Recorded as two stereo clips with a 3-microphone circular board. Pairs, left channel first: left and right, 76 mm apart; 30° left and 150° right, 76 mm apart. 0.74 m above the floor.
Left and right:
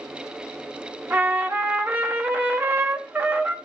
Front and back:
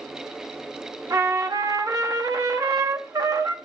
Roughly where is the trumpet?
Behind right.